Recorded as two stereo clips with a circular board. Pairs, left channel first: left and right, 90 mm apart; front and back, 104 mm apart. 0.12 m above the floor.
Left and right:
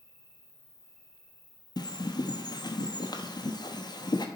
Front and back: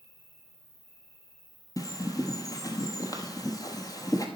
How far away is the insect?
About 4 m.